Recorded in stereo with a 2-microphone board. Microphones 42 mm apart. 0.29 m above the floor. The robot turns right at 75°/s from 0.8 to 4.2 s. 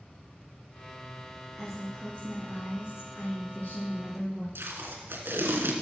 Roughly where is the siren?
No siren in this recording.